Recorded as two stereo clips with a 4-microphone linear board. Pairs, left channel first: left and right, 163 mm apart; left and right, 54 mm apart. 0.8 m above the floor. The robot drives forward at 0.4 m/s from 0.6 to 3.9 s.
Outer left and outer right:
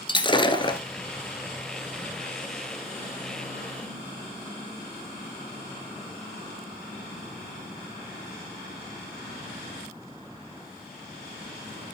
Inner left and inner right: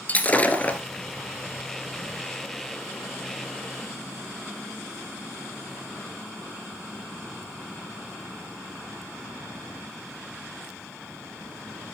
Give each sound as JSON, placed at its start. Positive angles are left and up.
{"t": 0.1, "sound": "breaking glass", "side_deg": 30, "distance_m": 1.5}